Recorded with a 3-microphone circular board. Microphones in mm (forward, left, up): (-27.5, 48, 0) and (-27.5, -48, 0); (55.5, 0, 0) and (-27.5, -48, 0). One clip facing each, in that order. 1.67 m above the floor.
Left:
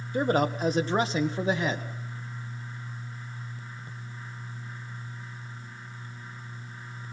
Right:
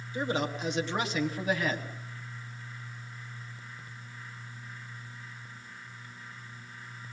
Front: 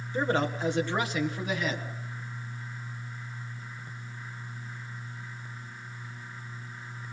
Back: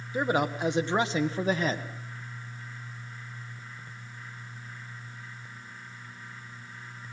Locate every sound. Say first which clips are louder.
0.1 s a man speaking: left 6 dB, back 1 dB; 130° left, 1.9 m; by 1.8 s 160° left, 2.5 m